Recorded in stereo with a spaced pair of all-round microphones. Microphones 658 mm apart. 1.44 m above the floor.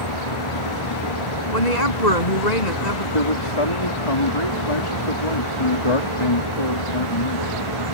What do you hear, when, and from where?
0.0 s a fan: 45° left (ahead or behind)
1.5 s a woman speaking: 90° left
3.1 s a man speaking: 50° left (ahead or behind)